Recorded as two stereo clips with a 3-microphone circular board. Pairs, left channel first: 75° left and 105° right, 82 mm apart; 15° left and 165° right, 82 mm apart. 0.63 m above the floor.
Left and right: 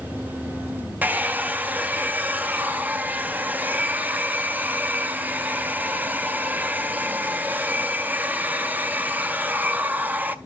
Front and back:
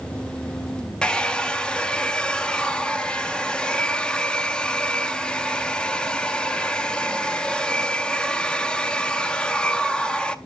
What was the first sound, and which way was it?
A hair dryer, 55° right.